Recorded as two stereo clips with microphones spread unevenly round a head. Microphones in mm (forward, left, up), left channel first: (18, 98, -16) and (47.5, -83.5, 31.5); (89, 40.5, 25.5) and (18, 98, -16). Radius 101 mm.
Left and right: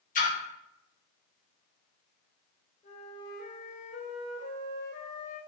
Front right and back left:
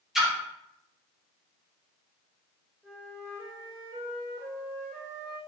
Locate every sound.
0.1 s a splash: 65° left, 1.3 m
2.8 s a flute: 45° left, 2.5 m